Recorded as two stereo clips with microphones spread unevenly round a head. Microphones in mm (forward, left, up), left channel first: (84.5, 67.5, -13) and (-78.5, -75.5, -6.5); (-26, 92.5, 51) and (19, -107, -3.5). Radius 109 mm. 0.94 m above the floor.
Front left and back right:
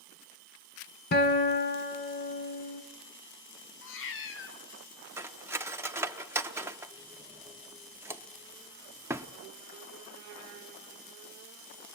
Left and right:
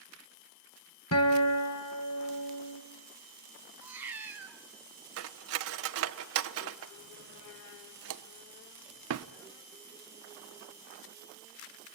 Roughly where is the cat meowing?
Ahead.